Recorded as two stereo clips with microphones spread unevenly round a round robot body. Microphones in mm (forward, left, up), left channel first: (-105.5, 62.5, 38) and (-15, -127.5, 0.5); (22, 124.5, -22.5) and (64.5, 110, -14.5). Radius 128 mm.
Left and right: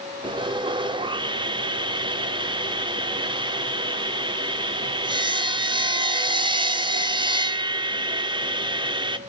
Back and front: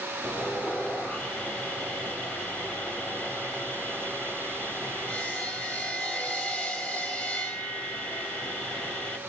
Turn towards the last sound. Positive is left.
turn(degrees=-125)